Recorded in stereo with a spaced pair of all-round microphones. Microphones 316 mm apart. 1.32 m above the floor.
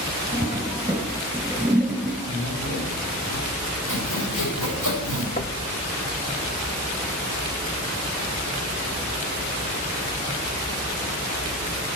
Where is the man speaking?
40° left (ahead or behind), 7.5 m.